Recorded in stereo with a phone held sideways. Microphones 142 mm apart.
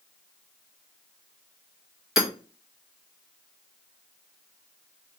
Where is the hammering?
Centre (ahead or behind), 1.0 m.